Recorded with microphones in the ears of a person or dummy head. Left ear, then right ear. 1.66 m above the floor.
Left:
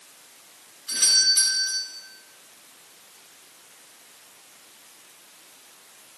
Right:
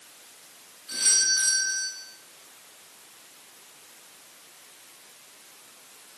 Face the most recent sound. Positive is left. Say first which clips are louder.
# left 4 dB
turn(degrees=40)  # may be behind; listen again after turning